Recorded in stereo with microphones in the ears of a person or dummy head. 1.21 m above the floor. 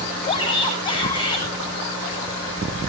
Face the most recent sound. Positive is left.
turn(degrees=20)  # may be behind; listen again after turning